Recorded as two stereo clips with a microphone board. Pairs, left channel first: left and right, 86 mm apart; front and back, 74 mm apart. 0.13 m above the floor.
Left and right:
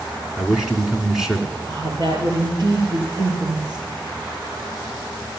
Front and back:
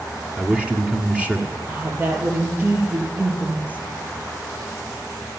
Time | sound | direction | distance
0.4 | a man speaking | 155° right | 1.4 m
1.7 | a woman speaking | 115° right | 3.5 m